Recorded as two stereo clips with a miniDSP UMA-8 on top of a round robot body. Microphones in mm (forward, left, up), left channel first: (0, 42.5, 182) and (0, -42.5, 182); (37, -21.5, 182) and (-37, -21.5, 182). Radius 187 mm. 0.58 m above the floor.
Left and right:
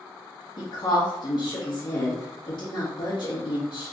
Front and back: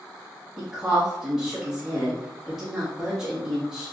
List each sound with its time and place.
0.6 s a woman speaking: 95° left, 1.6 m